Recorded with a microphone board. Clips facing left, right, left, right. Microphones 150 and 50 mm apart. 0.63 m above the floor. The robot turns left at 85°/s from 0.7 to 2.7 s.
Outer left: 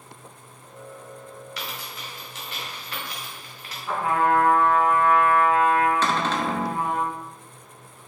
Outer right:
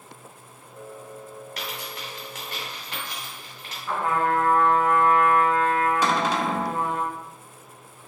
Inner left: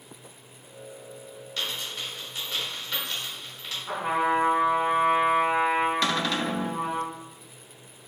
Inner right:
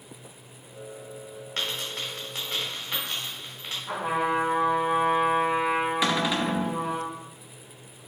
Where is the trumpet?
10° left (ahead or behind), 2.0 m.